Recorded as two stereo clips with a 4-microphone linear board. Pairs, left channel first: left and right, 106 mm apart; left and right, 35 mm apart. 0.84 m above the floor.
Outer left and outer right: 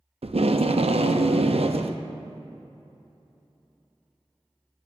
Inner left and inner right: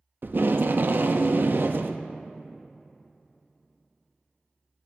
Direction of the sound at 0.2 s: 65° right (ahead or behind).